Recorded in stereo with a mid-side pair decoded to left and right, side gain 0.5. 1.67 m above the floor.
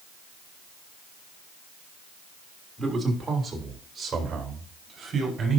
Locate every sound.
2.8 s a man speaking: 20° right, 3 m; by 5.6 s 40° right, 5 m